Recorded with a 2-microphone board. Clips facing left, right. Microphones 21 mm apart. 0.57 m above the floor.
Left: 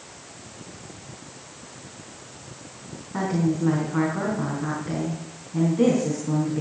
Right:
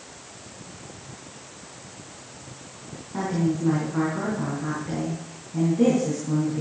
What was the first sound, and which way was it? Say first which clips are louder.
A woman speaking: left 1 dB; 15° left (ahead or behind).